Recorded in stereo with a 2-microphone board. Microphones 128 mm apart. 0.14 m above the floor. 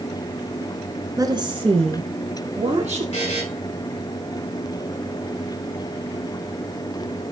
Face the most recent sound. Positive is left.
turn(degrees=50)  # may be behind; listen again after turning